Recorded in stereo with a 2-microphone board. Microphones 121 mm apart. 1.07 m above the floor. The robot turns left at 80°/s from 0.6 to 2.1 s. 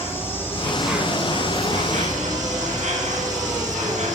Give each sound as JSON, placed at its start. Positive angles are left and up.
{"t": 0.0, "sound": "an insect", "azimuth_deg": 20, "distance_m": 5.5}